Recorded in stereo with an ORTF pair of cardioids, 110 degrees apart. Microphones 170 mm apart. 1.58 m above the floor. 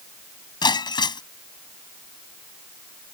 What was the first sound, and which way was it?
Breaking glass, 25° left.